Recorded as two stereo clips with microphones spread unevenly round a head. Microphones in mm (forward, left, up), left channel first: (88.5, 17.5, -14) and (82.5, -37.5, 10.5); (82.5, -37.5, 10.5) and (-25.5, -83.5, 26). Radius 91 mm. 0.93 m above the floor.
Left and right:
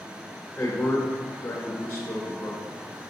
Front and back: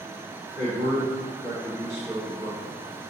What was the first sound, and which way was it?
A man speaking, 130° left.